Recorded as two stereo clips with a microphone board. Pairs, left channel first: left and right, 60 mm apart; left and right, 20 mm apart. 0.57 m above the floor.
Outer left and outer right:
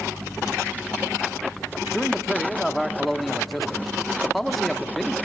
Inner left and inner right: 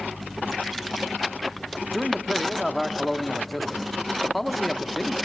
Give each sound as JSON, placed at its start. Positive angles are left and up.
{"t": 1.9, "sound": "a man speaking", "side_deg": 0, "distance_m": 1.0}